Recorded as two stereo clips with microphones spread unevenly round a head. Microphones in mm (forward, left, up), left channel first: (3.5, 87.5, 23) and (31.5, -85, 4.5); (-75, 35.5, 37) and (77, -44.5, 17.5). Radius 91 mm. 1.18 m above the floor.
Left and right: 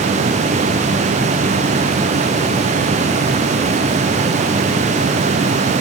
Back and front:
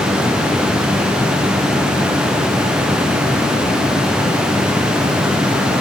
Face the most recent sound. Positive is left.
No sound to turn to.